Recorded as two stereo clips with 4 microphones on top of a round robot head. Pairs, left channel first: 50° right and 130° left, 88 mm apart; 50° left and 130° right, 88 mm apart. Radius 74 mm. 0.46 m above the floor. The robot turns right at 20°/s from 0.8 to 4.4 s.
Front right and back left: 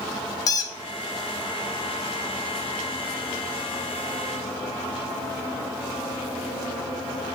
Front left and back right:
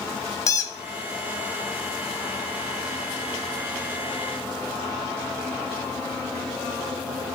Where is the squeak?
5° right, 0.8 m.